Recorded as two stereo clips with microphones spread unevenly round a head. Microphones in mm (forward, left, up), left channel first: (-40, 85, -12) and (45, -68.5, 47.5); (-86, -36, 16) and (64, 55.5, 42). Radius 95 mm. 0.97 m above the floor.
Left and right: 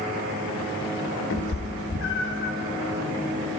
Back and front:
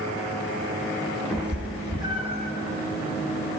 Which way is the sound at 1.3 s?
120° left.